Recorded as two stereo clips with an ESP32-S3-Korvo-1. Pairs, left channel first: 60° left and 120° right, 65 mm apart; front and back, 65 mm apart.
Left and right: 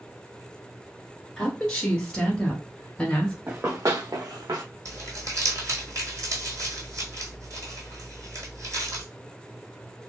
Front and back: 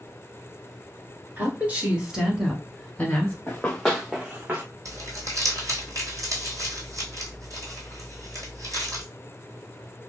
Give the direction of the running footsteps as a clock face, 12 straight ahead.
2 o'clock.